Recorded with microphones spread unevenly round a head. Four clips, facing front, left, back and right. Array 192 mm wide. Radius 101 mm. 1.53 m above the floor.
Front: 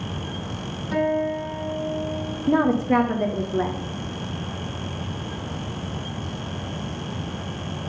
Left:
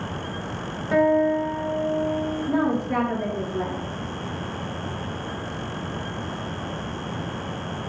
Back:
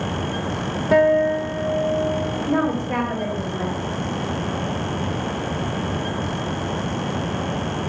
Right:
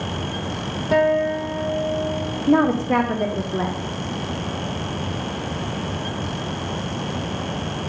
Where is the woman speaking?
40° right, 0.9 m.